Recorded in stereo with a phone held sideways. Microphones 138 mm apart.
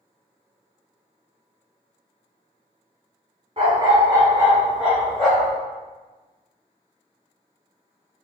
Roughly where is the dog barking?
Right.